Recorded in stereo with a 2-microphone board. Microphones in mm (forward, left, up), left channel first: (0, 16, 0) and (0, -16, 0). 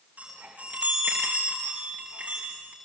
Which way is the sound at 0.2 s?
55° right (ahead or behind).